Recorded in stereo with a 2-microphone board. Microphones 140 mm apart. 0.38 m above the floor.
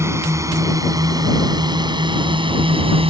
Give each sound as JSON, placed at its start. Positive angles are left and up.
{"t": 0.0, "sound": "a drone", "side_deg": -20}